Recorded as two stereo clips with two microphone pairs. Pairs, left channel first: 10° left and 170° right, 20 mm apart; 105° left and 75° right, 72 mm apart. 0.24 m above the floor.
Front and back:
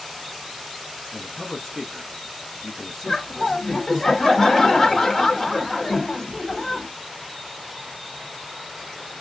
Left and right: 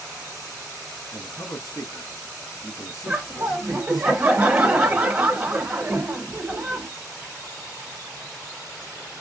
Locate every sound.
1.1 s a man speaking: 90° left, 2.5 m
3.1 s laughter: 55° right, 0.9 m